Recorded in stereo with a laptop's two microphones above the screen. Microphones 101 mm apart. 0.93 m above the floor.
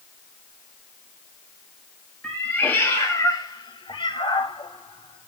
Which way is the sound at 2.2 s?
10° left (ahead or behind).